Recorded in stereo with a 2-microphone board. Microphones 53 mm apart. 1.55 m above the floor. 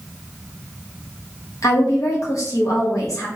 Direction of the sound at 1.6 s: 80° left.